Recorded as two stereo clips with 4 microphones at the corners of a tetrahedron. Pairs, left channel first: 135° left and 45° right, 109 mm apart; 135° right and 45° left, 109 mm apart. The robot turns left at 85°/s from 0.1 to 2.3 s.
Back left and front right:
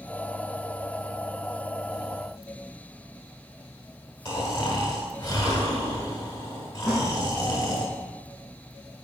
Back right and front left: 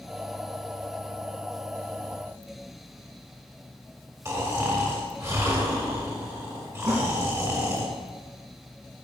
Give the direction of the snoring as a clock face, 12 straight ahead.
9 o'clock.